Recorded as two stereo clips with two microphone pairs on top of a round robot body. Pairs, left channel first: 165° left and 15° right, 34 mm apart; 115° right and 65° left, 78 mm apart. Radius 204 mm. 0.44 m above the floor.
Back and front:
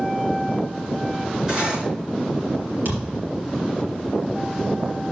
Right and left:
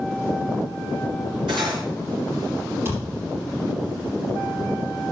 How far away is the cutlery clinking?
About 4 m.